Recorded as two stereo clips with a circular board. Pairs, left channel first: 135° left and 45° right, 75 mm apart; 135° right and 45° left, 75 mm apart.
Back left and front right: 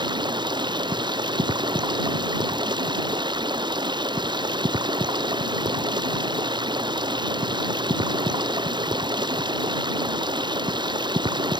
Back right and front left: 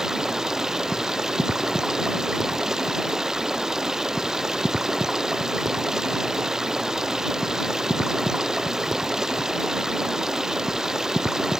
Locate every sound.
0.0 s running water: 40° right